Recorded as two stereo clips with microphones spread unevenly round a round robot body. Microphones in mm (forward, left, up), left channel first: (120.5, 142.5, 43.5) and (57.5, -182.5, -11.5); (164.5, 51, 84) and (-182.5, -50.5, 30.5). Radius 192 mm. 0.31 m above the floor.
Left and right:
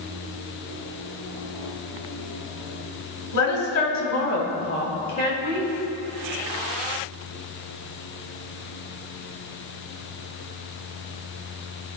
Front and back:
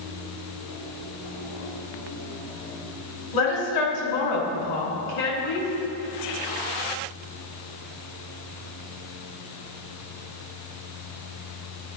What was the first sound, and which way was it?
A woman speaking, 45° left.